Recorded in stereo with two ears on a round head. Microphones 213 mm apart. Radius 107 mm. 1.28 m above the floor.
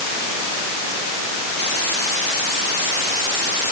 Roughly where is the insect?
No insect in this recording.